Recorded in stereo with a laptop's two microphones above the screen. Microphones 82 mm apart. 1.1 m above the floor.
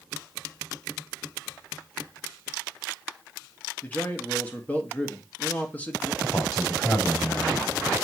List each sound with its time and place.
3.8 s a man speaking: 20° left (ahead or behind), 1.9 m
6.2 s a man speaking: 10° left (ahead or behind), 5.5 m